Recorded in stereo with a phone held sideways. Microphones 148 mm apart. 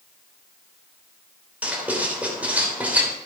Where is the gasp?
No gasp in this recording.